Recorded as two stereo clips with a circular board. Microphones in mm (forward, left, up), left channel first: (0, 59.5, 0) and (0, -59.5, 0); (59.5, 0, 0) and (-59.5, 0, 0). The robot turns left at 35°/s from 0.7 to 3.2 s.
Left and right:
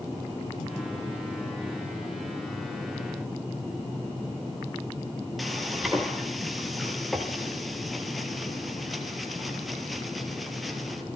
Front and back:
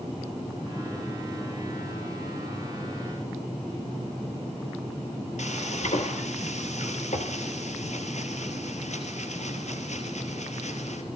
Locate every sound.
5.4 s frying: straight ahead, 3.5 m